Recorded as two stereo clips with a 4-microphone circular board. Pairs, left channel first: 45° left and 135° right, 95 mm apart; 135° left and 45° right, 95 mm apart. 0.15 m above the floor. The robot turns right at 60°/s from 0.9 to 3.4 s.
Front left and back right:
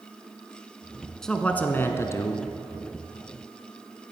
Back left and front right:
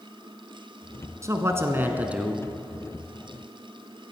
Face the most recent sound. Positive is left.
turn(degrees=95)